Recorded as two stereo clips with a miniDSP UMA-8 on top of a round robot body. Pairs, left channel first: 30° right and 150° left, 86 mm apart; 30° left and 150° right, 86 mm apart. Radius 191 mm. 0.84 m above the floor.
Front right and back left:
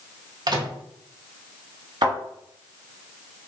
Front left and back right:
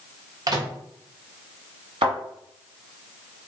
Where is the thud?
170° right, 1.1 m.